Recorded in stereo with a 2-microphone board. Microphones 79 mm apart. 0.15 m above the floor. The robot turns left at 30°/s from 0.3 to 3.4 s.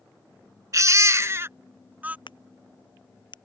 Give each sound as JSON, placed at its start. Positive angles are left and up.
{"t": 0.7, "sound": "a baby crying", "azimuth_deg": -110}
{"t": 2.3, "sound": "a crack", "side_deg": 75}